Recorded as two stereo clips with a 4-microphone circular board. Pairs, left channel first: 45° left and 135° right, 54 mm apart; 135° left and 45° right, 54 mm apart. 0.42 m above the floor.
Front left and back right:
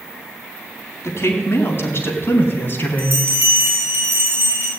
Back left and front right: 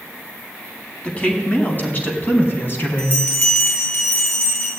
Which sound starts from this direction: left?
A woman speaking, at 1.0 s.